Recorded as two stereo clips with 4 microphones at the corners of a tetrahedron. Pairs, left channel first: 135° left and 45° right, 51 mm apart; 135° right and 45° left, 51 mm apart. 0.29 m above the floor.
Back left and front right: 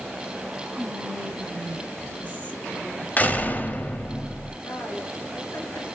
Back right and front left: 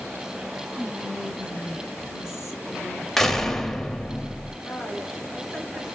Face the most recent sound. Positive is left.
turn(degrees=150)